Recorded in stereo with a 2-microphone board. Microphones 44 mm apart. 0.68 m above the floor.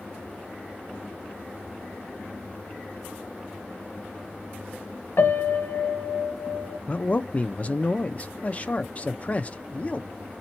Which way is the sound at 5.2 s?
60° left (ahead or behind).